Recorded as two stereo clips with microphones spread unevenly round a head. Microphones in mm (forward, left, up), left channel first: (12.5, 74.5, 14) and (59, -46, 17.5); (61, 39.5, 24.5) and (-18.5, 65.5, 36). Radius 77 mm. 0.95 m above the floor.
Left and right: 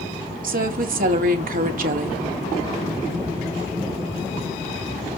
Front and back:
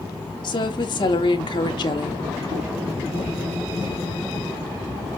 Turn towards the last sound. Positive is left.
turn(degrees=-60)